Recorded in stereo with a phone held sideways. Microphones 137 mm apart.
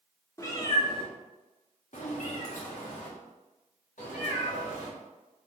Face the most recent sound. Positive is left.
turn(degrees=70)  # may be behind; listen again after turning